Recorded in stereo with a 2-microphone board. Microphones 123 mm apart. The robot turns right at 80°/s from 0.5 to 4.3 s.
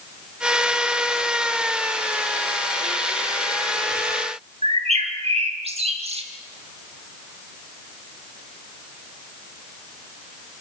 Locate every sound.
4.6 s a bird: 55° right (ahead or behind), 2 m